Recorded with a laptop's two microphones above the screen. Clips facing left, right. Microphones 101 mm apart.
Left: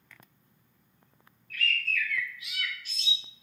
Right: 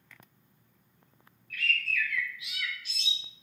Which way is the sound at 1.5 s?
45° left (ahead or behind).